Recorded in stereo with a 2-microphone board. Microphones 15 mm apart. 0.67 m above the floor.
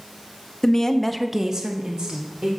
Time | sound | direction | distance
0.6 | a woman speaking | 35° left (ahead or behind) | 0.9 m